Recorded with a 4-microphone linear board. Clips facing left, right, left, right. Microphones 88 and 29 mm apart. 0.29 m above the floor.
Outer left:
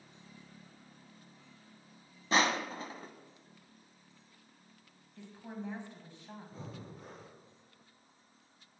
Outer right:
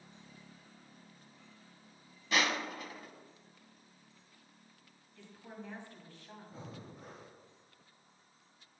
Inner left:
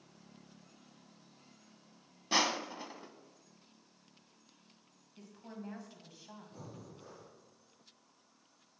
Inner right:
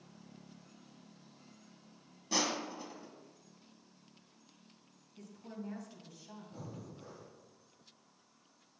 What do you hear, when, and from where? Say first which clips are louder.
2.3 s crushing: outer left 3 dB, inner left 3 dB; 30° left (ahead or behind), 0.7 m
5.2 s a woman speaking: outer left 5 dB, inner right 1 dB; 20° left (ahead or behind), 1.9 m
6.5 s breathing: outer left 1 dB, inner right 2 dB; 10° right (ahead or behind), 4 m